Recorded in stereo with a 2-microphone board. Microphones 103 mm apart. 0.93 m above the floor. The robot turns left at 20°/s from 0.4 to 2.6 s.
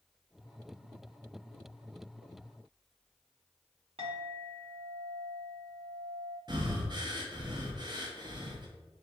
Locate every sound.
4.0 s a clink: 70° right (ahead or behind), 1.1 m
6.5 s breathing: 45° right (ahead or behind), 0.6 m